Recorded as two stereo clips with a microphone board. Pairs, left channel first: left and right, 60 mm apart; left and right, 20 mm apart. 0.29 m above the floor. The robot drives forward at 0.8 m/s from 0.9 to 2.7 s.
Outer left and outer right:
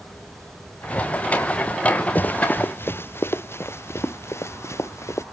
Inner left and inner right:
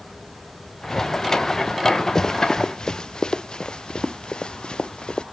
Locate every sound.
2.1 s running footsteps: 30° left (ahead or behind); by 5.2 s 50° left (ahead or behind)